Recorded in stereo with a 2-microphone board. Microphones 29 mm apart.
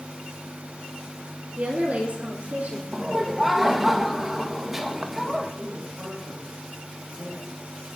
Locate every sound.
1.6 s a woman speaking: 65° right (ahead or behind), 2 m
2.9 s laughter: 10° right (ahead or behind), 1.3 m
5.6 s a man speaking: 20° right (ahead or behind), 7 m